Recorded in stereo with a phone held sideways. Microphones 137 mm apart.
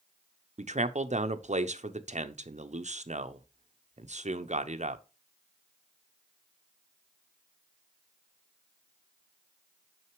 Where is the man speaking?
55° right (ahead or behind), 0.7 m.